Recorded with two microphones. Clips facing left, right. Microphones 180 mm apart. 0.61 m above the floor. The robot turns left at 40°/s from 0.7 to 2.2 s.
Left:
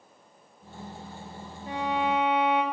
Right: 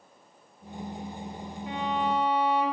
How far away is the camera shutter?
No camera shutter in this recording.